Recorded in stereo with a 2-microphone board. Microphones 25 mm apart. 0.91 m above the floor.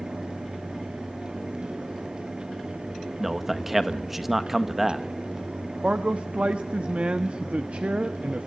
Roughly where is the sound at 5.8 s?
Right.